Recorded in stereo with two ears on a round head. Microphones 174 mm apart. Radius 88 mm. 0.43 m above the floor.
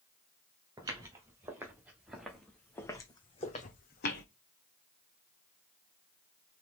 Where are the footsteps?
20° right (ahead or behind), 3 m; by 4.2 s 60° left (ahead or behind), 1.3 m.